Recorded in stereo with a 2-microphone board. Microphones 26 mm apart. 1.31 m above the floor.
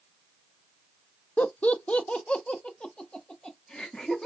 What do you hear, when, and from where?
1.4 s laughter: 80° left, 0.6 m; by 4.3 s 30° left (ahead or behind), 2.0 m